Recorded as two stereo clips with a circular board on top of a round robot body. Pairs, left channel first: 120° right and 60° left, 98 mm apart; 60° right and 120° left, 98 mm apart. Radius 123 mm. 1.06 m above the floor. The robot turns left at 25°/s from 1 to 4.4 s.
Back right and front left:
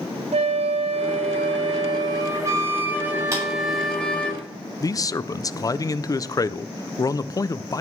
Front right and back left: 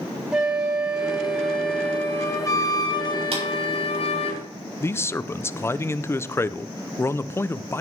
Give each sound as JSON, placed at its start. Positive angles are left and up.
{"t": 0.3, "sound": "a flute", "azimuth_deg": 35, "distance_m": 1.8}
{"t": 3.3, "sound": "a clap", "azimuth_deg": 120, "distance_m": 6.5}
{"t": 4.8, "sound": "a man speaking", "azimuth_deg": -105, "distance_m": 0.7}